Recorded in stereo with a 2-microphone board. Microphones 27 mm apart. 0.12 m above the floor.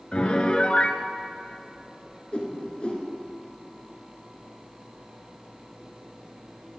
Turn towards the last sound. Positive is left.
turn(degrees=40)  # may be behind; listen again after turning